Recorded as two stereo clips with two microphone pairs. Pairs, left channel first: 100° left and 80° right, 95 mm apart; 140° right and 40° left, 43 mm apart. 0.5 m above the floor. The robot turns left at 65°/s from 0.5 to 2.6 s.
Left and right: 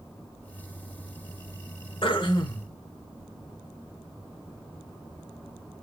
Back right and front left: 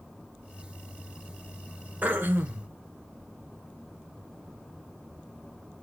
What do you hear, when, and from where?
2.0 s throat clearing: 90° left, 0.9 m; by 2.7 s 50° left, 0.9 m